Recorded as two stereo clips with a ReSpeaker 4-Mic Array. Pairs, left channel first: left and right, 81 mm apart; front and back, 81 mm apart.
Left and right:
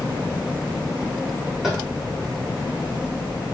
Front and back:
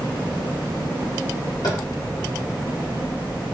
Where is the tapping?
5° right, 1.2 m.